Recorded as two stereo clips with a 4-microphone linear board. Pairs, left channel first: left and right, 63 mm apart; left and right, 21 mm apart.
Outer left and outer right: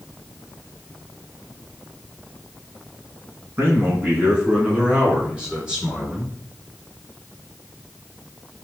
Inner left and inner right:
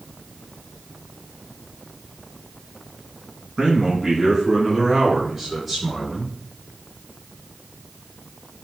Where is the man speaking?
35° right (ahead or behind), 2.5 m; by 6.3 s 10° right (ahead or behind), 4.5 m.